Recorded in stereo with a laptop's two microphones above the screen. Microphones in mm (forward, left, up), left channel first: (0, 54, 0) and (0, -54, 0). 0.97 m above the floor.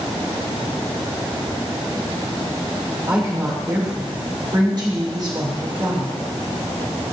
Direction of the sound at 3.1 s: 40° right (ahead or behind).